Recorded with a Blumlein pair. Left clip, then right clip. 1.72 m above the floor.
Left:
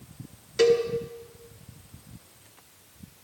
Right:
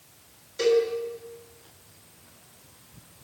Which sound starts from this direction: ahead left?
A cowbell, at 0.6 s.